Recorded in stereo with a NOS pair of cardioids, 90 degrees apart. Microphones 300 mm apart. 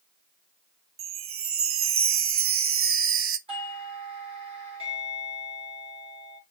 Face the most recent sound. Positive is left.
turn(degrees=-20)